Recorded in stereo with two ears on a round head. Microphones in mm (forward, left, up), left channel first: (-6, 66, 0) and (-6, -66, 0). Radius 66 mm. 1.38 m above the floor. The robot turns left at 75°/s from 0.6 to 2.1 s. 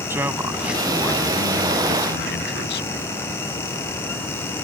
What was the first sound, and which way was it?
A man speaking, 165° right.